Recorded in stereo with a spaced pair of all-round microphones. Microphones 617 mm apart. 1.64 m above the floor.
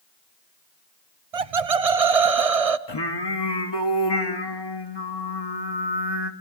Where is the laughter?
65° right (ahead or behind), 0.8 m.